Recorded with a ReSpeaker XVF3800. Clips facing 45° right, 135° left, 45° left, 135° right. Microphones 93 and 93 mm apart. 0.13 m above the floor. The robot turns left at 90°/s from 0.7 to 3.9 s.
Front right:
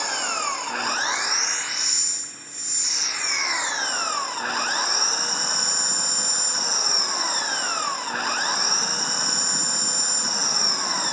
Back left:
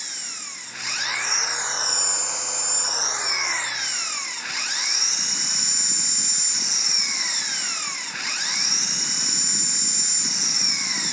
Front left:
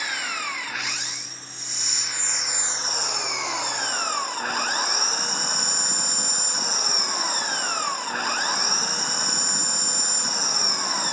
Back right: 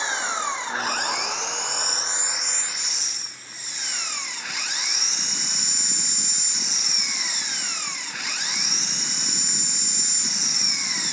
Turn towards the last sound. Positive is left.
turn(degrees=0)